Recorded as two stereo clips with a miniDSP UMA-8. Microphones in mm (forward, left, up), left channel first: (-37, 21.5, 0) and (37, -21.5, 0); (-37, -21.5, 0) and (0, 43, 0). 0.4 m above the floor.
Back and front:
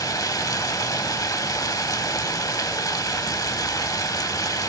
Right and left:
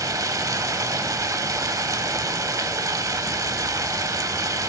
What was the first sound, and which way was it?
Running water, 105° left.